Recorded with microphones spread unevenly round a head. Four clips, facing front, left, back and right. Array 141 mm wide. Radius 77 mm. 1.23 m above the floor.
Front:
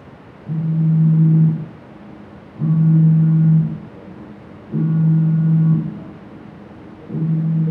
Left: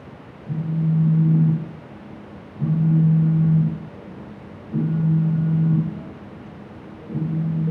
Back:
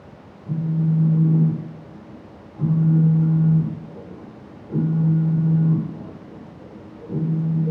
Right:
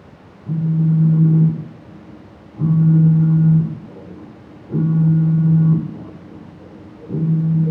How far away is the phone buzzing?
About 1.0 m.